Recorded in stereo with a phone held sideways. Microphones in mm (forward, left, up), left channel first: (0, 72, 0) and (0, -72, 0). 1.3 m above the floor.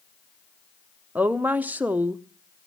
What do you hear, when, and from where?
1.1 s a woman speaking: 10° right (ahead or behind), 0.7 m